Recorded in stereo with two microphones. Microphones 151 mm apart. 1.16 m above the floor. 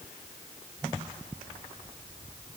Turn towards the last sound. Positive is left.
No sound to turn to.